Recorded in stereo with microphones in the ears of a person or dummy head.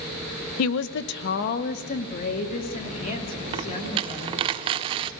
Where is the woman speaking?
80° left, 0.6 m; by 4.5 s 40° left (ahead or behind), 3.5 m.